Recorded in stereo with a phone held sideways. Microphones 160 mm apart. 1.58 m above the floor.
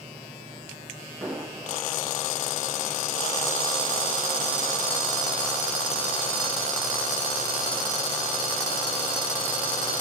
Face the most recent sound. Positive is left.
turn(degrees=-10)  # may be behind; listen again after turning